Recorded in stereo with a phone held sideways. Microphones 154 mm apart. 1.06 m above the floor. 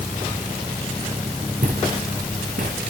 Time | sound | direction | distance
1.6 | footsteps | 70° right (ahead or behind) | 6.5 m